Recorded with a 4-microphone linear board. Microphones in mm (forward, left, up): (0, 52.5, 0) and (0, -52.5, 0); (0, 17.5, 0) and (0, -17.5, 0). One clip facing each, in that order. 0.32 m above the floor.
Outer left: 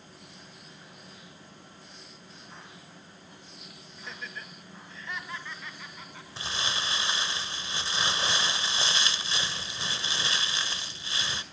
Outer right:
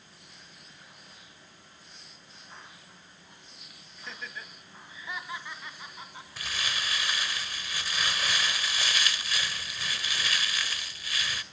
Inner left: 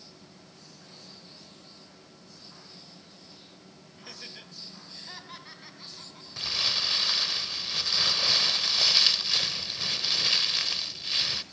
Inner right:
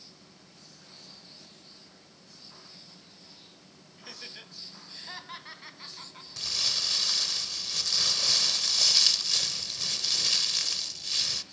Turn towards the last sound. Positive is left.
turn(degrees=25)  # may be behind; listen again after turning